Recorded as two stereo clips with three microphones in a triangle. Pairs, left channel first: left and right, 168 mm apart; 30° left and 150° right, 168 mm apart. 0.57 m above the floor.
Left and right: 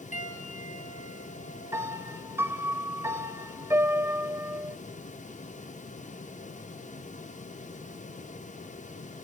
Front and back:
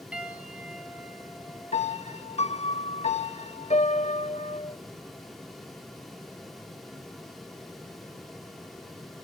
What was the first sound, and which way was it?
A piano, 125° left.